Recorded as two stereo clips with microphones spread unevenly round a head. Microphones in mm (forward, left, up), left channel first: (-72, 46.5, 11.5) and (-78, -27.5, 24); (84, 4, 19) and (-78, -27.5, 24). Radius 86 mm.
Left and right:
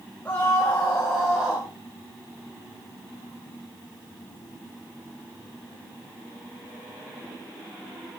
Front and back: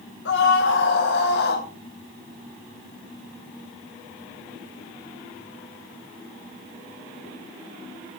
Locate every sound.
0.2 s a scream: 10° left, 3 m; by 1.7 s 10° right, 2 m